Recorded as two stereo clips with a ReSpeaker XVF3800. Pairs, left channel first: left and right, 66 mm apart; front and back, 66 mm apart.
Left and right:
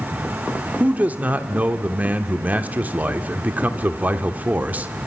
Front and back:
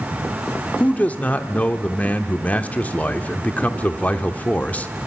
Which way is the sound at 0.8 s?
45° right.